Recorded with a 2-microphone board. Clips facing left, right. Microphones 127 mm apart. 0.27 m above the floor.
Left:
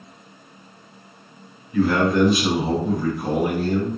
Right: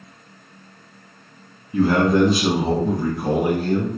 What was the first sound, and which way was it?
A man speaking, 30° right (ahead or behind).